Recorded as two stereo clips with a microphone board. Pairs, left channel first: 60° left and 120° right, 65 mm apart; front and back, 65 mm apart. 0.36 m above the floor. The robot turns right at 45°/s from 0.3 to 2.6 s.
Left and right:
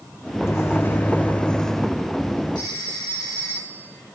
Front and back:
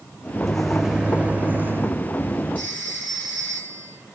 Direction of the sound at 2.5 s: 65° left.